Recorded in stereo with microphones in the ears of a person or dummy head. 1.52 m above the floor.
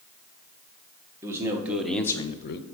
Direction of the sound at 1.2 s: 20° right (ahead or behind).